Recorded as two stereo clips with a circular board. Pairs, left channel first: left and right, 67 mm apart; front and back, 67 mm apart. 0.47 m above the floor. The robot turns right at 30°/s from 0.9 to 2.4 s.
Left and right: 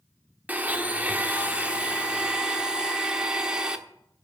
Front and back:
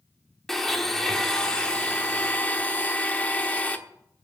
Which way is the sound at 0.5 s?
80° right.